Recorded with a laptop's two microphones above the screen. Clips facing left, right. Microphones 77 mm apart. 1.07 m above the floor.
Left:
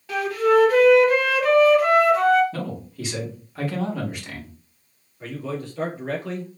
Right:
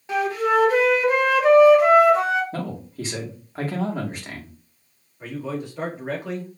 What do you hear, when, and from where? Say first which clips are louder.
0.1 s a flute: left 2 dB; 25° right (ahead or behind), 0.9 m
2.5 s a man speaking: right 1 dB; 35° right (ahead or behind), 1.8 m
5.2 s a man speaking: right 1 dB; 15° right (ahead or behind), 2 m